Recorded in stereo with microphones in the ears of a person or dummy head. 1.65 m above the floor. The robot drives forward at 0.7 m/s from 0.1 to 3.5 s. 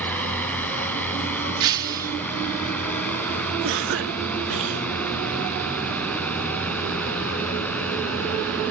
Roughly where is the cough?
Right.